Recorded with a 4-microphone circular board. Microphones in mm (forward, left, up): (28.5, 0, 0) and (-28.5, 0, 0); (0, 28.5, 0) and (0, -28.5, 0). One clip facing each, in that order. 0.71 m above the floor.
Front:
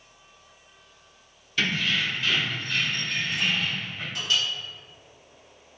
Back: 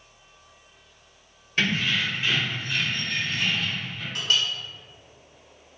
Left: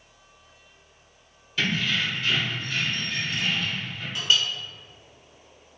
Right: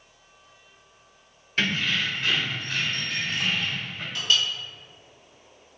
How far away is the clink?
About 1.4 m.